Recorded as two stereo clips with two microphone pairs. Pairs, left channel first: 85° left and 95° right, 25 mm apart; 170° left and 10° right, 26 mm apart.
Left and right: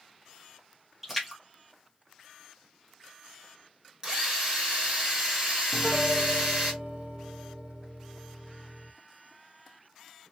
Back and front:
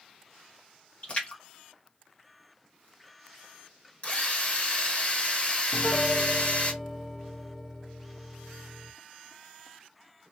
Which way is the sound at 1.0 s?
175° right.